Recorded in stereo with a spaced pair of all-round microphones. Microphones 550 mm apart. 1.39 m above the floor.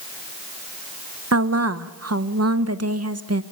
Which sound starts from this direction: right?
A woman speaking, at 1.3 s.